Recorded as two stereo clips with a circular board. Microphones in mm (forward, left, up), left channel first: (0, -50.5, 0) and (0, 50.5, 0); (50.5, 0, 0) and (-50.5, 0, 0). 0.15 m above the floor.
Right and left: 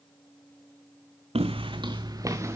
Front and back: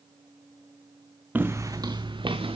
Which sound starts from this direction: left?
Footsteps, at 1.4 s.